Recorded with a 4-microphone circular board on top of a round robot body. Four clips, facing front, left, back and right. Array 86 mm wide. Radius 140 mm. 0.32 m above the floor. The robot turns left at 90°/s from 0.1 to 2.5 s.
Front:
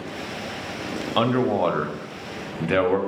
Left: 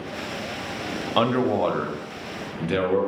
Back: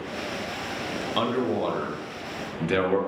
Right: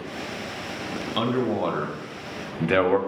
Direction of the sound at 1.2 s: 55° left.